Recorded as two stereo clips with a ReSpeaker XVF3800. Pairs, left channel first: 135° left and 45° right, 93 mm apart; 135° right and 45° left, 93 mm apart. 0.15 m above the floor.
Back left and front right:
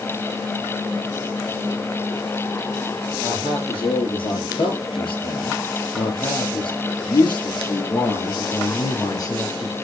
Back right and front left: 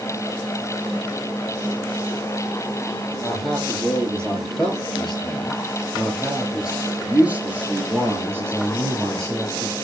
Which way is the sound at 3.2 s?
150° left.